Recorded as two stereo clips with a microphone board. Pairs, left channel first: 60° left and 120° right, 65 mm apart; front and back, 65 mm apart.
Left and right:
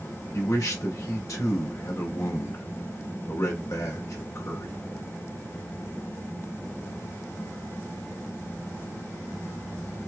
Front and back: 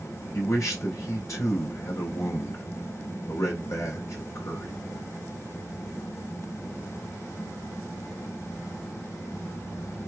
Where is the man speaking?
35° left, 1.8 m.